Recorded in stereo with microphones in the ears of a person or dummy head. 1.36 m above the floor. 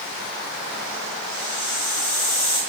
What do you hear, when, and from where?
1.3 s a hiss: 10° left (ahead or behind), 6 m